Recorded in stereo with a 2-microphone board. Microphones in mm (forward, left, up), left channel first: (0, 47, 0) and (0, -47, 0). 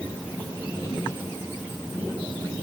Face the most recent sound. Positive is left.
No sound to turn to.